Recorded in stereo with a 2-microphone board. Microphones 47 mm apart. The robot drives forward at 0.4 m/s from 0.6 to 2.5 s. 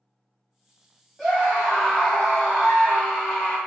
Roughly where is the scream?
Centre.